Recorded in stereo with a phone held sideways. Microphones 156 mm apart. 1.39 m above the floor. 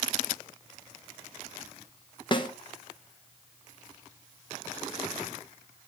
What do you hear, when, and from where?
2.3 s a snare drum: 35° left (ahead or behind), 0.9 m